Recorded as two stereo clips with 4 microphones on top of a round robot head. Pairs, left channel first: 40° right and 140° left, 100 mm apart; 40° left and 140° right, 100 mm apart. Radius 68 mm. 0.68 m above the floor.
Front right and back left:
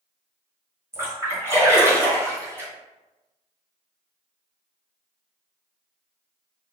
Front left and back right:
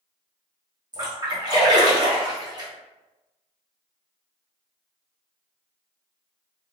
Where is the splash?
165° right, 1.4 m.